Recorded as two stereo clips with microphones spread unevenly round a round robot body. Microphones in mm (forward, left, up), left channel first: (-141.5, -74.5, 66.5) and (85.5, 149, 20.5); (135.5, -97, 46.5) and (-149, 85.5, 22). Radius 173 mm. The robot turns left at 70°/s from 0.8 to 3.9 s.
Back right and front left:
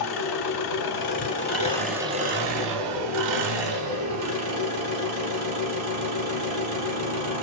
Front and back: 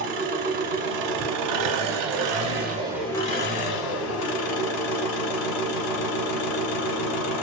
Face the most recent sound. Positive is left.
turn(degrees=-5)